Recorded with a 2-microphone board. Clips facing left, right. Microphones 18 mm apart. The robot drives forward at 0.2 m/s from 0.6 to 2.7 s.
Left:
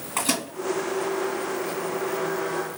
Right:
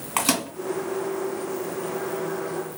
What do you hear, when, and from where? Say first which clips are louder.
0.2 s a microwave: right 2 dB; 60° right (ahead or behind), 2.5 m